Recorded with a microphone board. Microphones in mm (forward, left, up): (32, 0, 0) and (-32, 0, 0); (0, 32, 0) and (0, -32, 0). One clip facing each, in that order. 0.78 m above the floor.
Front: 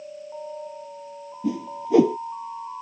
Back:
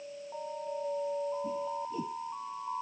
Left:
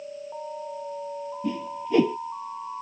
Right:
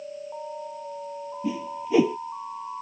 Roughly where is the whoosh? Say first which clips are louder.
Front 6 dB, right 1 dB; ahead.